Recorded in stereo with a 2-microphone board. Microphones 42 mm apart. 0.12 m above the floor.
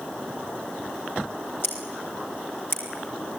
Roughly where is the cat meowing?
I don't hear a cat meowing.